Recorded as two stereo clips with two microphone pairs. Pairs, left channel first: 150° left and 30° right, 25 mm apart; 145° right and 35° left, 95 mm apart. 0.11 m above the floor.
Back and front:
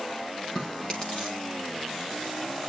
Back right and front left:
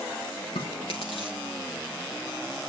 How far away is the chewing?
About 1.8 m.